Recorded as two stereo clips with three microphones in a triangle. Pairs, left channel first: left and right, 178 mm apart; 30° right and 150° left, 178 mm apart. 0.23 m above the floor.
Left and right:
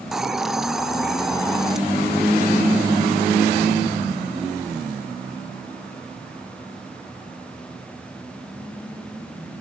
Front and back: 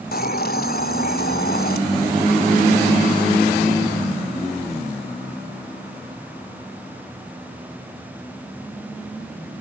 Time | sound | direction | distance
0.1 | a hiss | straight ahead | 0.6 m